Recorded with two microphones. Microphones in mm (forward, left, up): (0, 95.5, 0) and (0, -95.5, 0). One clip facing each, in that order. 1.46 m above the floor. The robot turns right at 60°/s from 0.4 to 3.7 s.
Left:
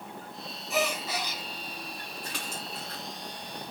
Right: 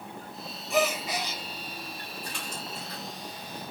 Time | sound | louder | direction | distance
0.7 | a gasp | right 3 dB | 175° left | 1.5 m
2.2 | a splash | even | 80° left | 2 m